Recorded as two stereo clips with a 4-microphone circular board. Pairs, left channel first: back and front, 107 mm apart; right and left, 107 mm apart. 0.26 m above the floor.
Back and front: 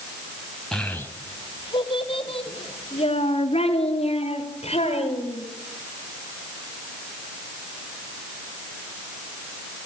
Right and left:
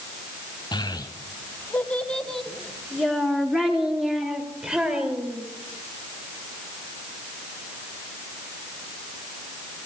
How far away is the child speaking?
About 1.1 m.